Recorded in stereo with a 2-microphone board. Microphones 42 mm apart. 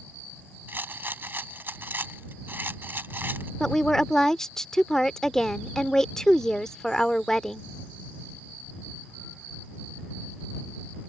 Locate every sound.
0.7 s a rattle: 60° right (ahead or behind)
3.6 s a woman speaking: 15° left (ahead or behind)